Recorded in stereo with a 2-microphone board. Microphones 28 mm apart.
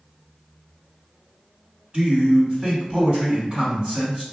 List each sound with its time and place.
1.9 s a man speaking: 35° right (ahead or behind), 1.7 m